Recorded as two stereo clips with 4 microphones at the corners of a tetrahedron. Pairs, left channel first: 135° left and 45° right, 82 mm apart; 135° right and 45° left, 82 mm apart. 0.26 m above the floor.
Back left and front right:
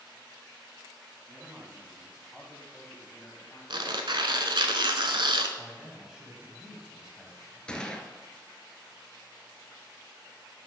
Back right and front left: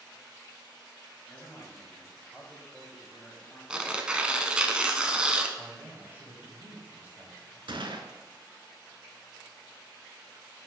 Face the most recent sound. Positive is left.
turn(degrees=55)